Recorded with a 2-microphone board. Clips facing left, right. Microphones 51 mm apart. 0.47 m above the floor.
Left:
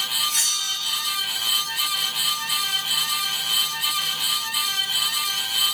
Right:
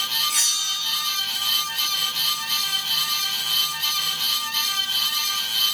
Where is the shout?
No shout in this recording.